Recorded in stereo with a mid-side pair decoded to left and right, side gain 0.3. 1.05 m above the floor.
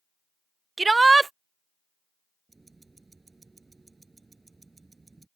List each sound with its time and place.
0.8 s a shout: 35° right
2.5 s ticking: 30° right